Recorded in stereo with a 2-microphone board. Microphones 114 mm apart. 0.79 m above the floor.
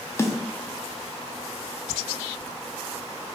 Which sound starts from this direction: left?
A snare drum, at 0.2 s.